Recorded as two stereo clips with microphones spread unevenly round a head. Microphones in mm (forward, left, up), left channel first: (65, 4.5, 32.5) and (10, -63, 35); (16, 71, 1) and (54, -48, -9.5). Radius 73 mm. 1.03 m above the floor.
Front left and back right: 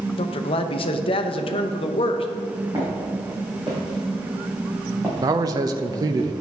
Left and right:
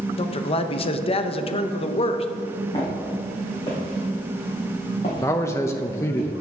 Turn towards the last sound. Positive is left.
turn(degrees=180)